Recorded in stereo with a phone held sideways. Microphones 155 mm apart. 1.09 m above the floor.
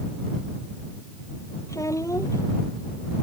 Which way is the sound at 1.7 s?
20° left (ahead or behind).